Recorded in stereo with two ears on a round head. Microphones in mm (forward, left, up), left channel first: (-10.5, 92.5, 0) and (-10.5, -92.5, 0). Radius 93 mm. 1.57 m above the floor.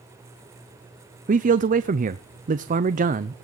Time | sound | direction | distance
1.3 | a man speaking | 40° right (ahead or behind) | 0.6 m